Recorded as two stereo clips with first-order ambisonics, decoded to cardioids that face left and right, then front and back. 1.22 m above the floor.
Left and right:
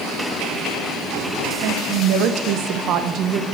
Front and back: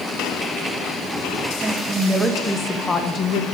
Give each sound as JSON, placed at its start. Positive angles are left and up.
{"t": 1.6, "sound": "a woman speaking", "azimuth_deg": -100, "distance_m": 1.1}